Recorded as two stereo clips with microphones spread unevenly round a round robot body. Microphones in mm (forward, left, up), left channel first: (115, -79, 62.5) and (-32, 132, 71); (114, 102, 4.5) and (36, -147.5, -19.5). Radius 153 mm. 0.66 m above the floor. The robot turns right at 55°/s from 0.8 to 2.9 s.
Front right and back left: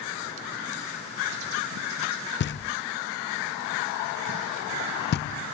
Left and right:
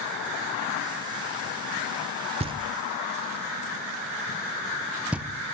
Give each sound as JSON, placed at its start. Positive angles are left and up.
{"t": 2.4, "sound": "knocking", "azimuth_deg": -60, "distance_m": 0.7}